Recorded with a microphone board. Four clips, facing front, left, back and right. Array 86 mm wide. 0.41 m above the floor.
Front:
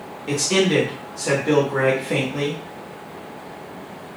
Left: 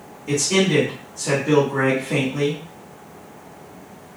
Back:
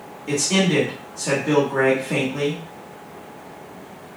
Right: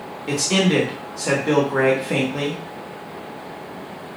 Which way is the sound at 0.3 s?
65° right.